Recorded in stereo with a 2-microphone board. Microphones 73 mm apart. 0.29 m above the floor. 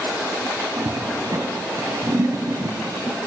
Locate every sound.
0.8 s a toilet flushing: 55° right (ahead or behind), 2 m